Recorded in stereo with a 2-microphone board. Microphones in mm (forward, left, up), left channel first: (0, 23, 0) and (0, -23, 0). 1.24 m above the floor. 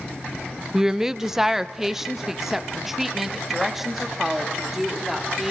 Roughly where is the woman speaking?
Centre.